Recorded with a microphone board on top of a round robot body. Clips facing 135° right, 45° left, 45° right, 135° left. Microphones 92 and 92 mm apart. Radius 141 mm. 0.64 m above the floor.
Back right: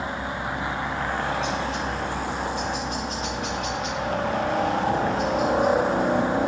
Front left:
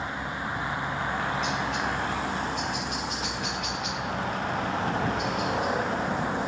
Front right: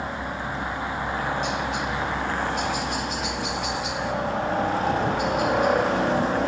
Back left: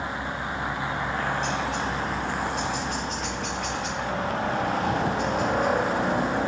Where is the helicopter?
120° right.